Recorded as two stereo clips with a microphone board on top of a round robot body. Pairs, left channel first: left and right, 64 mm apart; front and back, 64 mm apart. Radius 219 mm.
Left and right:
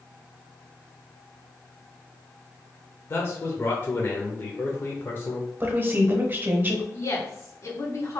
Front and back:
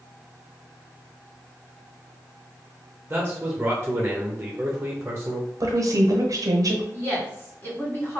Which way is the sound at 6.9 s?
50° left.